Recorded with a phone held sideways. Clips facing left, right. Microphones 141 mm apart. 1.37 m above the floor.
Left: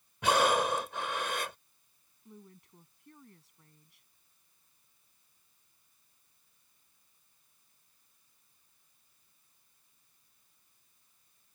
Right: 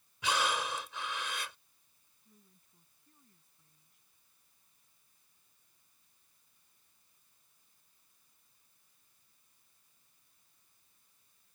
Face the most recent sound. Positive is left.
turn(degrees=90)